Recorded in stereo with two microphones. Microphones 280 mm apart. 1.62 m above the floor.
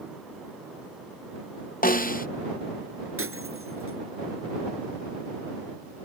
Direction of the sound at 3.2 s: 50° right (ahead or behind).